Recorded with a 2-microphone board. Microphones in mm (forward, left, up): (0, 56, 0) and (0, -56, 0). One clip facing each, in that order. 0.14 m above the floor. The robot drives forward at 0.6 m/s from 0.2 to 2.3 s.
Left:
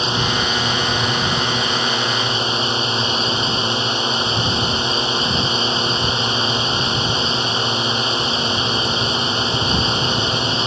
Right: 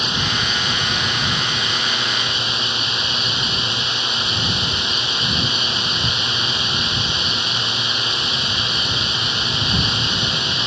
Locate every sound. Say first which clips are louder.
0.0 s a drone: left 4 dB; 30° left (ahead or behind); by 10.7 s 35° left (ahead or behind)